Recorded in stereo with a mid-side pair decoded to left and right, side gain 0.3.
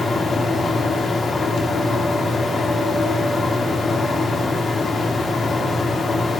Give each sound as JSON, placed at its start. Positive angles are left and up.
{"t": 0.0, "sound": "a fan", "azimuth_deg": 60, "distance_m": 4.0}